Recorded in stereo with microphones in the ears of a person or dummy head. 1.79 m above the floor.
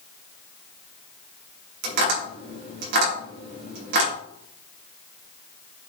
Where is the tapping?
55° right (ahead or behind), 4.5 m.